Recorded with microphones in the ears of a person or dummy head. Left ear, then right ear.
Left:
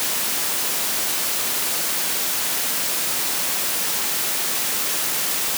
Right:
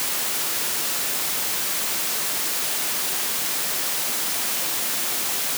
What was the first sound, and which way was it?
Only background noise.